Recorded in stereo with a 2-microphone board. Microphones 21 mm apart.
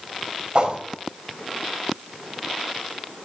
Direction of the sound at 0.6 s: 45° right (ahead or behind).